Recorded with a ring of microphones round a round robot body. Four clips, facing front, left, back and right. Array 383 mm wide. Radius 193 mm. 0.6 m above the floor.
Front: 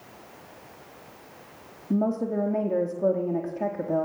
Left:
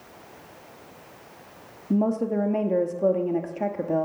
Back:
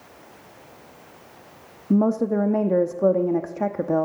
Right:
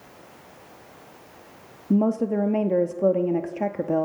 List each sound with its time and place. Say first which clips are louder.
1.9 s a woman speaking: right 2 dB, back 5 dB; 155° right, 0.9 m